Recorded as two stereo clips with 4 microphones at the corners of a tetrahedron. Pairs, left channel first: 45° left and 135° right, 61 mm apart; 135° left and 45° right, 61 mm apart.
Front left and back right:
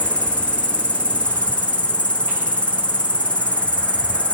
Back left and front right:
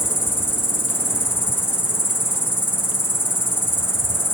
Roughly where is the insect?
Left.